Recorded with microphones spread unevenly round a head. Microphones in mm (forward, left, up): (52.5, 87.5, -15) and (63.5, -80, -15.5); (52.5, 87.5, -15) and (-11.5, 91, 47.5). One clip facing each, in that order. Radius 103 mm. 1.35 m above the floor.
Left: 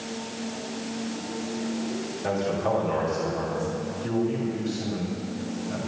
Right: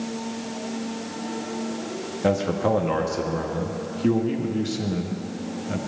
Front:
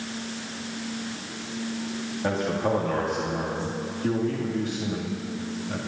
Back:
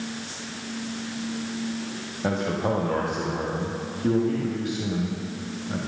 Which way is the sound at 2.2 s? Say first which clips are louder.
Right 5 dB, even; 110° right.